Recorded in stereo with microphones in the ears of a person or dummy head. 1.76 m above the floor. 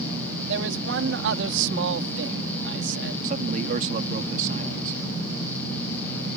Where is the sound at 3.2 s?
45° right (ahead or behind).